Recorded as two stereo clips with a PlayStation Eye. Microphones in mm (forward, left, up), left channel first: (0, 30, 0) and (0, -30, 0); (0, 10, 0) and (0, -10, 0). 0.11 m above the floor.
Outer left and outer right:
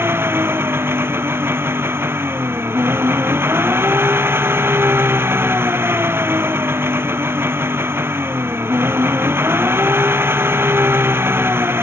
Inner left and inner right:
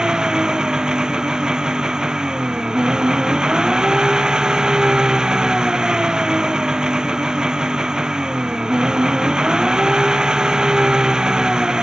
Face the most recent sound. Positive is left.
turn(degrees=-40)  # may be behind; listen again after turning